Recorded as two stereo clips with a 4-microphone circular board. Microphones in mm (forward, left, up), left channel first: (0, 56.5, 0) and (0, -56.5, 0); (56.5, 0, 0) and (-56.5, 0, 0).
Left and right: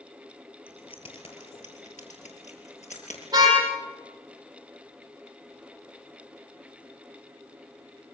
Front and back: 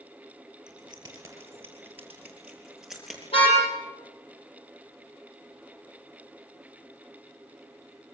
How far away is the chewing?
No chewing in this recording.